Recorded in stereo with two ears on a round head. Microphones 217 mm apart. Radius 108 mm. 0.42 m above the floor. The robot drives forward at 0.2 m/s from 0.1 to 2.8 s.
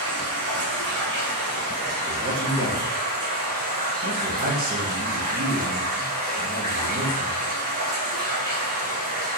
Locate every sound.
0.0 s running water: 60° right (ahead or behind), 0.8 m; by 9.4 s 40° right (ahead or behind), 1.1 m
2.1 s a man speaking: 40° right (ahead or behind), 0.9 m; by 7.4 s 35° right (ahead or behind), 0.9 m